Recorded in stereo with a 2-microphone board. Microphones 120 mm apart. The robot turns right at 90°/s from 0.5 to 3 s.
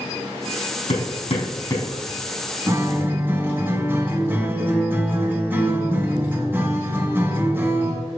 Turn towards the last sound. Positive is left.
turn(degrees=-15)  # may be behind; listen again after turning